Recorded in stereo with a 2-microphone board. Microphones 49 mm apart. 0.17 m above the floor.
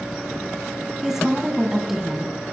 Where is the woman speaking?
10° right (ahead or behind), 1.0 m.